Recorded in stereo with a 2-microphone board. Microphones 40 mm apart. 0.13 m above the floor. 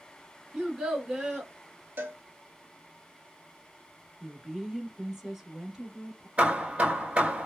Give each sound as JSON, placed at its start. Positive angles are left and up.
{"t": 0.5, "sound": "a child speaking", "side_deg": -15, "distance_m": 1.0}
{"t": 2.0, "sound": "a cowbell", "side_deg": -60, "distance_m": 0.6}
{"t": 4.2, "sound": "a woman speaking", "side_deg": -10, "distance_m": 1.1}
{"t": 6.4, "sound": "hammering", "side_deg": -30, "distance_m": 0.8}